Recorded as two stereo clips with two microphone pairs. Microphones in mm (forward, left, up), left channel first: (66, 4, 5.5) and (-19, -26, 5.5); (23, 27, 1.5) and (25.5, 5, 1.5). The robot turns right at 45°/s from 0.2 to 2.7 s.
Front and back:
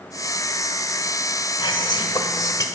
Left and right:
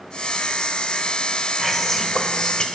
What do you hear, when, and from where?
1.6 s whispering: 10° left, 1.7 m; by 2.6 s 60° left, 1.7 m